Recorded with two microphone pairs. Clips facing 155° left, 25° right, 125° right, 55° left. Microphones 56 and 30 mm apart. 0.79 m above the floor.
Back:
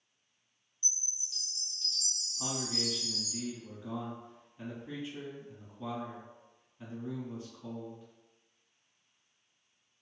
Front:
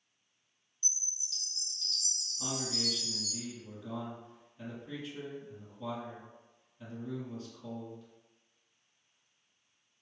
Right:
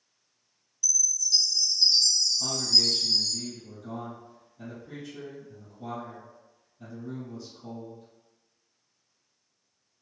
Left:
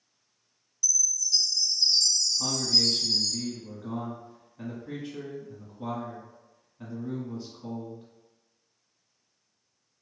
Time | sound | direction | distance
0.8 | a chime | 145° right | 1.0 m
2.4 | a man speaking | 80° left | 1.4 m